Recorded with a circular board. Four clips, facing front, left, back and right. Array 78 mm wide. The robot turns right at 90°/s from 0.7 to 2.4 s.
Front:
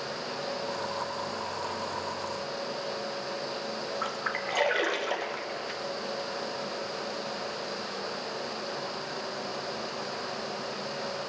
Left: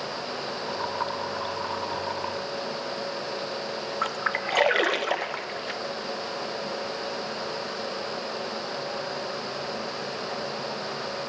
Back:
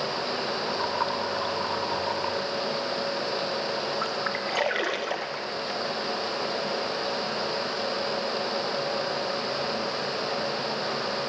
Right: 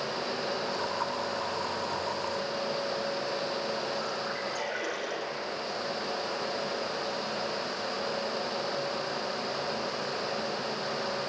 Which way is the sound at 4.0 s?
95° left.